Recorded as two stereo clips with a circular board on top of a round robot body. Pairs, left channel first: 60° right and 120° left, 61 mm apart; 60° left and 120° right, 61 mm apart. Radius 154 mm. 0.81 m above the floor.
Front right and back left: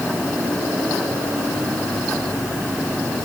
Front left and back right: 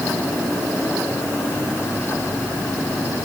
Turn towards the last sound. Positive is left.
No sound to turn to.